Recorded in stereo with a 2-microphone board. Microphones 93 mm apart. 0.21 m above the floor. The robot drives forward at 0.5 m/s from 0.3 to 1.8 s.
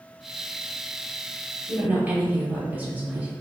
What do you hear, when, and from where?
1.7 s a woman speaking: 15° right (ahead or behind), 1.0 m